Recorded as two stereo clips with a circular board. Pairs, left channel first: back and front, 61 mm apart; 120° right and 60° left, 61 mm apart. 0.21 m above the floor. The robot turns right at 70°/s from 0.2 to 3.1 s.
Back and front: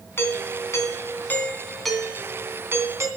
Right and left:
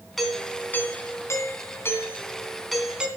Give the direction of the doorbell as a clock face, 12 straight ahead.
7 o'clock.